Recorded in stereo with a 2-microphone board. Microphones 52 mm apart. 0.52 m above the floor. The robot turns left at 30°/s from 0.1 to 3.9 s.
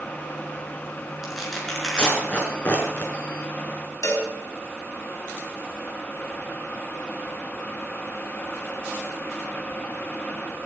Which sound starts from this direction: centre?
Tearing paper, at 1.2 s.